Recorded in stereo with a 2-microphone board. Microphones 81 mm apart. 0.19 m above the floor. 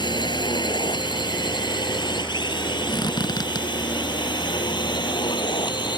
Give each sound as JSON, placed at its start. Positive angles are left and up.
{"t": 0.0, "sound": "a drone", "side_deg": 70}
{"t": 2.9, "sound": "a squeak", "side_deg": 55}